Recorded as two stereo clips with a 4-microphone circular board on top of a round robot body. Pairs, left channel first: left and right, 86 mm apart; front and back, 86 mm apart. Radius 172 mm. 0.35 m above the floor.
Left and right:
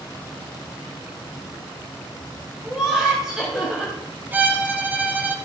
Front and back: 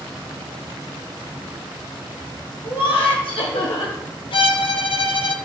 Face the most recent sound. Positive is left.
turn(degrees=-20)